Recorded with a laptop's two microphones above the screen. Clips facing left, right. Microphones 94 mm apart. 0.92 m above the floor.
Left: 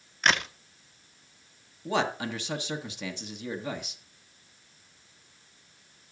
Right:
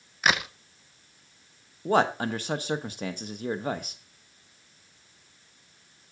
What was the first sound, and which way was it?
A crack, 5° right (ahead or behind).